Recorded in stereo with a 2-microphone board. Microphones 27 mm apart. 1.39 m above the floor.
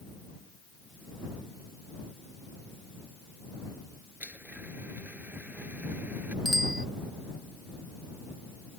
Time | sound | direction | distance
4.2 | a blender | 70° right (ahead or behind) | ?
6.5 | a bicycle bell | 10° right (ahead or behind) | ?